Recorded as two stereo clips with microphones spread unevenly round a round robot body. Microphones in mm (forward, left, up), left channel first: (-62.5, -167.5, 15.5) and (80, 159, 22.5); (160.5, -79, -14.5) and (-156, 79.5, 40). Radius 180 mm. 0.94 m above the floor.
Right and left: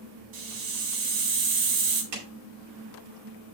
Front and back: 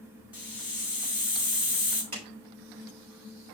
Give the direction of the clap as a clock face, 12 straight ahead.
9 o'clock.